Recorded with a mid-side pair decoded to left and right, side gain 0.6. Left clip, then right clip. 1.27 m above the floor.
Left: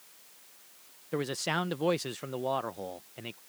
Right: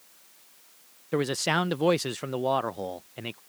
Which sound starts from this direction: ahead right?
A man speaking, at 1.1 s.